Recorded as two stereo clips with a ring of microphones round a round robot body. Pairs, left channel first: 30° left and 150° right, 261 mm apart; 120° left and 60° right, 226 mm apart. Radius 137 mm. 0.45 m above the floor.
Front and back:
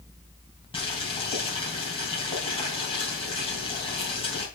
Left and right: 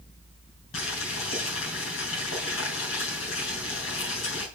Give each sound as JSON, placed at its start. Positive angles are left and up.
{"t": 0.7, "sound": "boiling", "azimuth_deg": 100, "distance_m": 3.5}